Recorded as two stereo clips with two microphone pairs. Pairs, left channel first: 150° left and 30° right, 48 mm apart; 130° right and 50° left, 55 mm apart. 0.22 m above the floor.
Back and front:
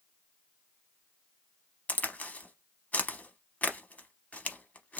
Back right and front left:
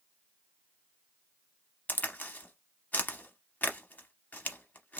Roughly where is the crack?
Behind.